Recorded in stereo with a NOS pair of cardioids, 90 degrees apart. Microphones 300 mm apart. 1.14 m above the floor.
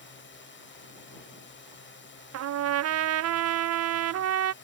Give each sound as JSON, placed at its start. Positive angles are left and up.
{"t": 0.0, "sound": "a drone", "azimuth_deg": 40}
{"t": 2.3, "sound": "a trumpet", "azimuth_deg": -60}